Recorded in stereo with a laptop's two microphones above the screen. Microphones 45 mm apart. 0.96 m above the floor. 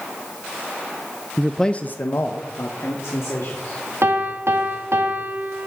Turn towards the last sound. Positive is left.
turn(degrees=-65)  # may be behind; listen again after turning